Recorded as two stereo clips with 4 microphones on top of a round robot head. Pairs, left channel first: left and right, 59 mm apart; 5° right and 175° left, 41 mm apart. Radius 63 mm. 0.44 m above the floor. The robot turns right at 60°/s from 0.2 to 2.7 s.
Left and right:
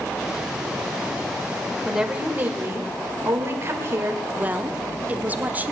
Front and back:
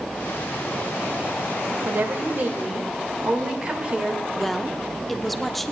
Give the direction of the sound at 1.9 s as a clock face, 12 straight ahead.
6 o'clock.